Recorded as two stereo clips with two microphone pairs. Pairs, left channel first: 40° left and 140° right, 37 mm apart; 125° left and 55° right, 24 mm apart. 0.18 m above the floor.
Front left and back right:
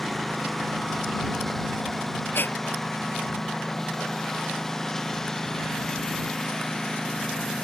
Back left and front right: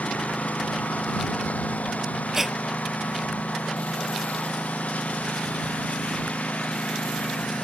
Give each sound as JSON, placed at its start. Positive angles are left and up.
{"t": 0.0, "sound": "a lawn mower", "azimuth_deg": 125}
{"t": 2.3, "sound": "breathing", "azimuth_deg": 25}